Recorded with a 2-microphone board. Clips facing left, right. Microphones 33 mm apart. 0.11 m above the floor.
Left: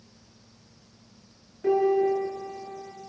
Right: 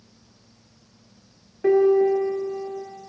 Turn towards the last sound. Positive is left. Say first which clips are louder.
# right 5 dB
turn(degrees=-40)  # may be behind; listen again after turning